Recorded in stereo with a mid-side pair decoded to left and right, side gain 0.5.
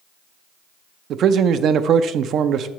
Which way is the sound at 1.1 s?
60° right.